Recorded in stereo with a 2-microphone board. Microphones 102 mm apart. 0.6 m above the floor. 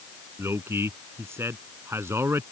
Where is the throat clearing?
I don't hear throat clearing.